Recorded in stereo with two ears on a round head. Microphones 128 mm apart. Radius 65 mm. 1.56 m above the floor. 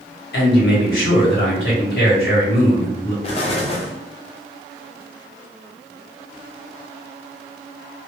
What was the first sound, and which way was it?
A man speaking, 85° left.